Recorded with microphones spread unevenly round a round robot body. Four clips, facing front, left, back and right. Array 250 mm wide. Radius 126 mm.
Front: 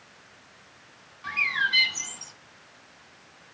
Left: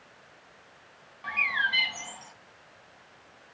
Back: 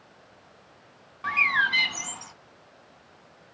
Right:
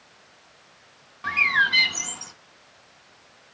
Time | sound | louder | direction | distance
1.2 | a bird | right 7 dB, back 4 dB | 115° right | 0.5 m